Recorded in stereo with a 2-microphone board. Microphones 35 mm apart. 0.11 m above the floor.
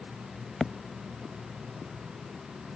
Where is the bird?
I don't hear a bird.